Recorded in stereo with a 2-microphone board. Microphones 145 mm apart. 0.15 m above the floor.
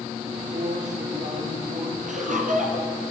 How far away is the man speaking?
About 4 m.